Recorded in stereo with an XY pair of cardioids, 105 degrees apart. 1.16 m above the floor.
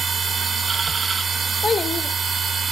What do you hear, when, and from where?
0.0 s a machine running: 35° right, 1.4 m
1.6 s a child speaking: 35° left, 2.5 m